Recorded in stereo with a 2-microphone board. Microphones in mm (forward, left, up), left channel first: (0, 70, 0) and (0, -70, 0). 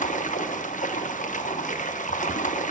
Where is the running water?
65° left (ahead or behind), 0.9 m.